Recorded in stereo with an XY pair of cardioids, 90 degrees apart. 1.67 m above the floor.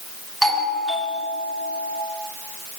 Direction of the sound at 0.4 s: 5° right.